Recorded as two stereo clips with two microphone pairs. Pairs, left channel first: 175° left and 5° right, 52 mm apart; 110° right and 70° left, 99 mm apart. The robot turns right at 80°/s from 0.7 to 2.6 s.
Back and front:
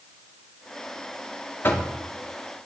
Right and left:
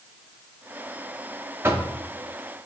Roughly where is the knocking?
Behind left.